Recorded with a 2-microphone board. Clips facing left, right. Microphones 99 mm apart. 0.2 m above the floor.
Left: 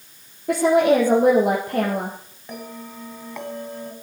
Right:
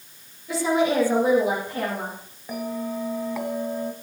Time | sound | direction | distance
0.5 | a woman speaking | 60° left (ahead or behind) | 5 m
2.5 | a bell | 5° right (ahead or behind) | 1.8 m